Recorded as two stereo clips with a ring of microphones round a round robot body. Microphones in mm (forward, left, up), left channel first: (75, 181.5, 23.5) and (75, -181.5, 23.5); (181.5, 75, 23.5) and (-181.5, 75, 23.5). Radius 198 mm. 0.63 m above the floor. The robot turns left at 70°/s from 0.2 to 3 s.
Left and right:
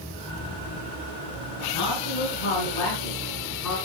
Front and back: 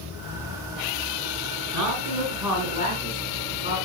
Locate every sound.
1.7 s a man speaking: 145° left, 6.5 m; by 3.8 s 55° left, 6.5 m